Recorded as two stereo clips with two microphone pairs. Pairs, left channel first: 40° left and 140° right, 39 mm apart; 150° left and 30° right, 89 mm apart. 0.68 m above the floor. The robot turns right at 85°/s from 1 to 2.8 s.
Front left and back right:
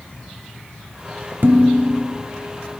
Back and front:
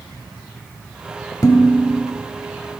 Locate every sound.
1.4 s dishes clattering: 160° right, 0.9 m; by 2.1 s 105° right, 0.9 m